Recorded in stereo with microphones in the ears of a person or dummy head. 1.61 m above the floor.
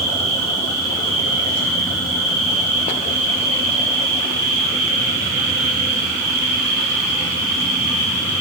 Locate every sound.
0.0 s an insect: 75° right (ahead or behind), 3.5 m